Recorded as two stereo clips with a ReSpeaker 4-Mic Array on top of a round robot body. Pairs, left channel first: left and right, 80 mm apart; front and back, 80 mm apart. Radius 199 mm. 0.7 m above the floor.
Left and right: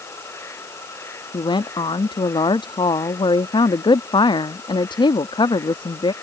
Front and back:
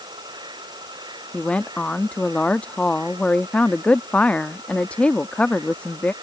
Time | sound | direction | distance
0.0 | an insect | 150° left | ?
1.3 | a woman speaking | 75° left | ?